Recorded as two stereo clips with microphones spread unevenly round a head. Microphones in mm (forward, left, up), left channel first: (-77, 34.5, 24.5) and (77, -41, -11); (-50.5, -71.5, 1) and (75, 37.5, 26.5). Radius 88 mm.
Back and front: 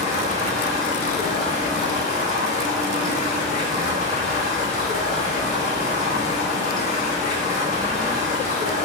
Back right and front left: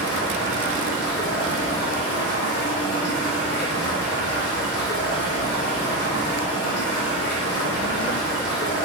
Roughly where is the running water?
Behind.